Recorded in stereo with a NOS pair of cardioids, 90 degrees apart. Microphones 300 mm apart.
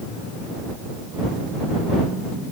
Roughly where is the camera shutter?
No camera shutter in this recording.